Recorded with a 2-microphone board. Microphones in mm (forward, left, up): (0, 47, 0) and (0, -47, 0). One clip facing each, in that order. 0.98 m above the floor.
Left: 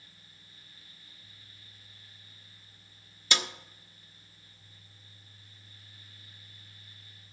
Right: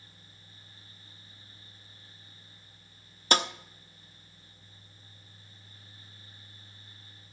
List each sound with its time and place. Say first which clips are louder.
3.3 s a snare drum: right 6 dB; 45° right (ahead or behind), 0.7 m